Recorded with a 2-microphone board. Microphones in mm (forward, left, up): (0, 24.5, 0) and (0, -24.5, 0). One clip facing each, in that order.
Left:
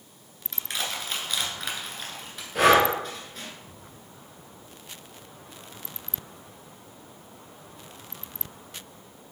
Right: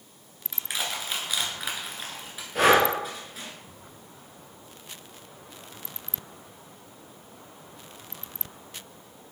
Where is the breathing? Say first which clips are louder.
Left 1 dB; centre (ahead or behind), 2 m.